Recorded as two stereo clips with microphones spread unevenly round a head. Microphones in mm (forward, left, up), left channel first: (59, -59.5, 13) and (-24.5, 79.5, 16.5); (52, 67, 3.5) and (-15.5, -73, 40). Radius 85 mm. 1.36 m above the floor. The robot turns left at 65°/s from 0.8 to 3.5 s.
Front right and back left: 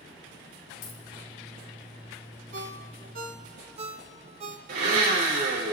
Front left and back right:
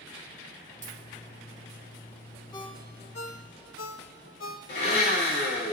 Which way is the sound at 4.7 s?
95° left.